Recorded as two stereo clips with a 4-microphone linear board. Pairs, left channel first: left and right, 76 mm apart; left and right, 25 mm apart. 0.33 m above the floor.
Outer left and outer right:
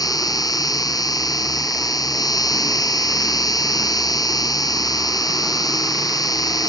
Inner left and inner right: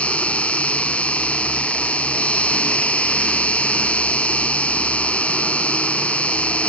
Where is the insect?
55° left (ahead or behind).